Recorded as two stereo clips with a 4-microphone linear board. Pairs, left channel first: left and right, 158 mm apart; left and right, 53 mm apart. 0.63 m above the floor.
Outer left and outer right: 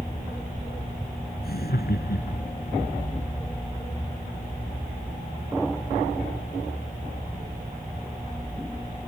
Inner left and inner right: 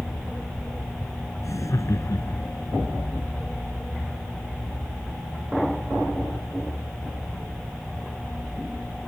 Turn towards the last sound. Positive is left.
turn(degrees=85)